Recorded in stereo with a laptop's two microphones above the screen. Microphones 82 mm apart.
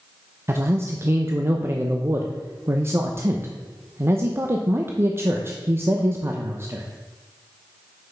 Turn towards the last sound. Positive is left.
turn(degrees=-30)  # may be behind; listen again after turning